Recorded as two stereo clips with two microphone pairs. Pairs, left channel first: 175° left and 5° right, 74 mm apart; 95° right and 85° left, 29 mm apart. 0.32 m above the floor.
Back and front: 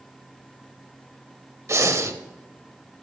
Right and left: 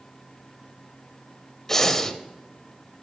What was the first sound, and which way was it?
Breathing, 20° right.